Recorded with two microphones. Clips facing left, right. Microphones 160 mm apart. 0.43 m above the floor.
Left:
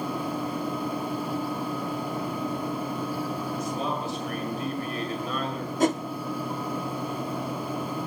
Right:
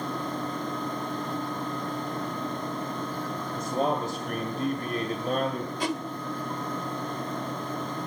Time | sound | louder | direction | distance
3.5 | a man speaking | right 7 dB | 45° right (ahead or behind) | 2 m
5.8 | a whoosh | left 8 dB | 45° left (ahead or behind) | 0.8 m